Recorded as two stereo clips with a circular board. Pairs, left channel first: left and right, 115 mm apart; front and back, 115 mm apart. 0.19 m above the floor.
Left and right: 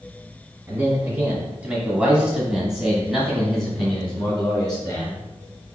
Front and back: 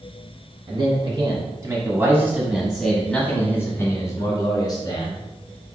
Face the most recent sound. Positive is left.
turn(degrees=15)